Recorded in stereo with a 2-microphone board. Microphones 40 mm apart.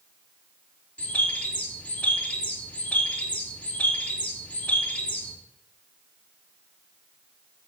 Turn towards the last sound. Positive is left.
turn(degrees=35)  # may be behind; listen again after turning